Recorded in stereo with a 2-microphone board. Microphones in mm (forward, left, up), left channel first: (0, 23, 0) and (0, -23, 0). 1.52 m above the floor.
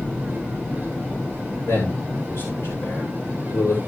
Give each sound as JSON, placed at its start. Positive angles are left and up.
{"t": 1.7, "sound": "a man speaking", "side_deg": 70, "distance_m": 7.5}